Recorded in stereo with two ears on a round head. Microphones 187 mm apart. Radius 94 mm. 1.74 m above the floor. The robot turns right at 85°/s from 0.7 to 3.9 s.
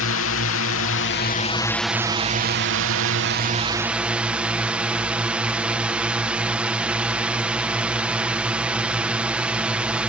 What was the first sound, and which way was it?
A drone, 80° left.